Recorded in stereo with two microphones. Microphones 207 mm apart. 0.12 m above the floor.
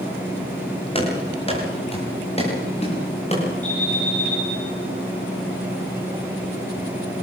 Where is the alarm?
35° left (ahead or behind), 10 m.